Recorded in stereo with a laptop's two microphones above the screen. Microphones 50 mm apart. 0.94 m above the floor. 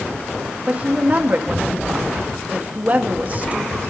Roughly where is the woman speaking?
Right.